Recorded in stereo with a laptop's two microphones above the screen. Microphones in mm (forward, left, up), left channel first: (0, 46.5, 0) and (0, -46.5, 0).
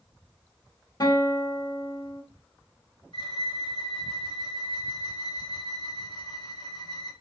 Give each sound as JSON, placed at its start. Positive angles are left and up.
{"t": 1.0, "sound": "a guitar", "side_deg": 45, "distance_m": 1.1}
{"t": 3.1, "sound": "a violin", "side_deg": 55, "distance_m": 1.7}